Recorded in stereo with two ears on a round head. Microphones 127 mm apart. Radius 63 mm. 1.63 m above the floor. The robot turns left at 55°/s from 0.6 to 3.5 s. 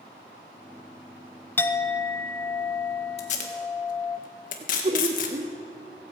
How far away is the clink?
About 0.7 m.